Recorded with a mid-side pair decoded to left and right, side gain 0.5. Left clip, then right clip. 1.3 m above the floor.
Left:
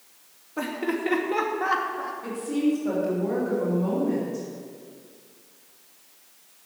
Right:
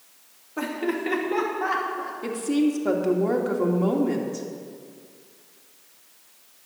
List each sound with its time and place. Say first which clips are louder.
0.6 s laughter: right 1 dB; straight ahead, 2.5 m; by 2.1 s 20° left, 3 m
2.2 s a woman speaking: right 3 dB; 50° right, 3 m